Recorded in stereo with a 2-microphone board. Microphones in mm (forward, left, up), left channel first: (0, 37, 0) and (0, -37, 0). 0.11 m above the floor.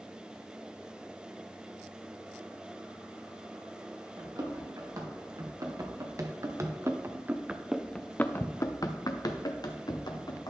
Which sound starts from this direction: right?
Running footsteps, at 4.2 s.